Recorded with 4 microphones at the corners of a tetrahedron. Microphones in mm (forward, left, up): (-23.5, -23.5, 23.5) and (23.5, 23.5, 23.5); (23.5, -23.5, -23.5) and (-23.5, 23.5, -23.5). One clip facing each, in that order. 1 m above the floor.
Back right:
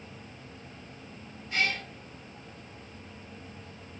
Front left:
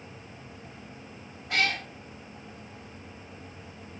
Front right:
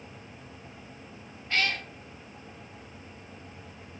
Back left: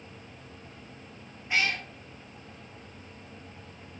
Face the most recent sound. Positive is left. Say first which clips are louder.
# front left 2 dB, back left 1 dB
turn(degrees=60)